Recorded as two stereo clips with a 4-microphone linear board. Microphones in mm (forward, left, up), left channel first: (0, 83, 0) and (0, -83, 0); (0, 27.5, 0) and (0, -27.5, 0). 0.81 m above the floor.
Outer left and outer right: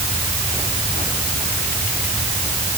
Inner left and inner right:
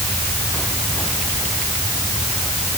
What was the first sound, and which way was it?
Only background noise.